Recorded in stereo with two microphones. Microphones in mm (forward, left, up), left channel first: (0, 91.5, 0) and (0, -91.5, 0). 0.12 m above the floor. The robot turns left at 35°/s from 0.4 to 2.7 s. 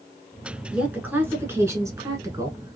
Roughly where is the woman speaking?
Centre.